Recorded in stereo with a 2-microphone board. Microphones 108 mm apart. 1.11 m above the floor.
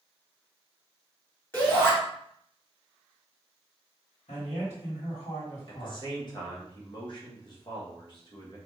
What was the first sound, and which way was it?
A shout, 20° left (ahead or behind).